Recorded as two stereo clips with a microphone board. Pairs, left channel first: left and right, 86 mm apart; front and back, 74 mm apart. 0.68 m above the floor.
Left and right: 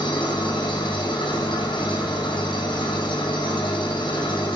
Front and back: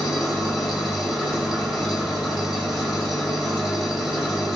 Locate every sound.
0.0 s an engine running: 90° left, 2.0 m